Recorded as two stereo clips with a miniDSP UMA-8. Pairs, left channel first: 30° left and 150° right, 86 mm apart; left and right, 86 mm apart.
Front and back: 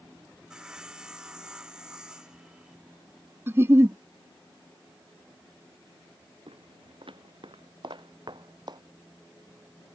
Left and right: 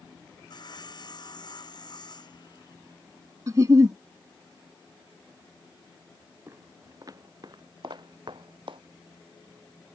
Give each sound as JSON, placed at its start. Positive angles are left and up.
{"t": 0.5, "sound": "sawing", "azimuth_deg": 130}
{"t": 3.5, "sound": "a giggle", "azimuth_deg": -105}
{"t": 6.5, "sound": "footsteps", "azimuth_deg": -150}